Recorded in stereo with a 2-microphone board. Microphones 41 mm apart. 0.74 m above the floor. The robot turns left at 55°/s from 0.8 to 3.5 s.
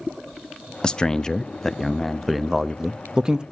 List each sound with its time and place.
0.8 s a man speaking: 20° left (ahead or behind), 0.5 m; by 3.4 s 20° right (ahead or behind), 0.5 m